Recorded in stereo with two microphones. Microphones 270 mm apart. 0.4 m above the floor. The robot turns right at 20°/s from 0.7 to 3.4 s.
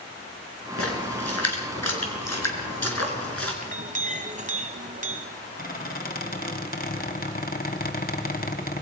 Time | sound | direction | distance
0.8 | a splash | 60° left (ahead or behind) | 4 m
3.6 | a clink | 30° right (ahead or behind) | 1.7 m
5.6 | a squeak | 35° left (ahead or behind) | 1.6 m